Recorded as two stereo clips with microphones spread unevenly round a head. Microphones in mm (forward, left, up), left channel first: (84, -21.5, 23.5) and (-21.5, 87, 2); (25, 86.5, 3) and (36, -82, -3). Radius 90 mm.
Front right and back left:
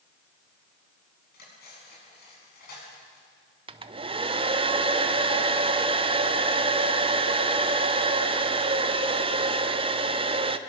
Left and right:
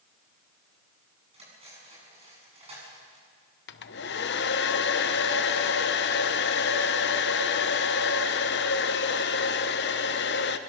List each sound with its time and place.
1.3 s cutlery clinking: 30° right, 8.5 m
3.7 s a hair dryer: 90° left, 1.0 m